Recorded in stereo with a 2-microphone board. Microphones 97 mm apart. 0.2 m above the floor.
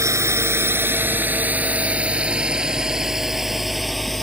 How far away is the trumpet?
I don't hear a trumpet.